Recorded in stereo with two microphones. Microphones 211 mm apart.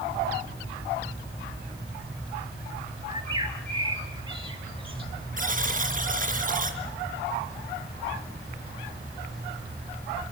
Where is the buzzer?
40° right (ahead or behind), 4 m.